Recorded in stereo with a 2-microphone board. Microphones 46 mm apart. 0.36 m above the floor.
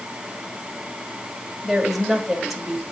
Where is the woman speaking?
5° right (ahead or behind), 1.7 m.